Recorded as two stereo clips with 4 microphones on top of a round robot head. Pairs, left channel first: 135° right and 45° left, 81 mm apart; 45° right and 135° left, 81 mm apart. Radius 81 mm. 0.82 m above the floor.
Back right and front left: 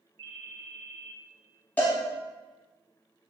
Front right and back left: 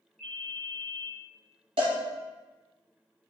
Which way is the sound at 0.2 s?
40° left.